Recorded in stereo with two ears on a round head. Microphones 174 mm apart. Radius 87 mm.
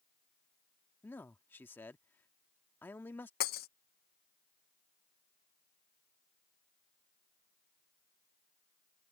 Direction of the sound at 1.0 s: 10° left (ahead or behind).